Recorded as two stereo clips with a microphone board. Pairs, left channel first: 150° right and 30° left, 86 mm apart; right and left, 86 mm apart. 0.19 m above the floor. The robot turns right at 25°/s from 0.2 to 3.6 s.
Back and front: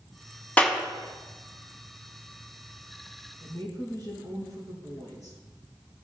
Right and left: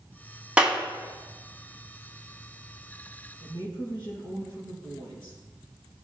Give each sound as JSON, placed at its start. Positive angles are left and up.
{"t": 0.6, "sound": "a clap", "azimuth_deg": 155, "distance_m": 1.4}
{"t": 3.4, "sound": "a woman speaking", "azimuth_deg": -110, "distance_m": 4.5}